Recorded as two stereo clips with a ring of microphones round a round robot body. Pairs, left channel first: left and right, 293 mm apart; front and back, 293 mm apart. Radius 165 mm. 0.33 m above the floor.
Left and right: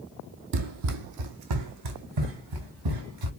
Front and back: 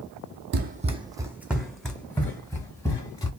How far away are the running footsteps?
About 0.5 m.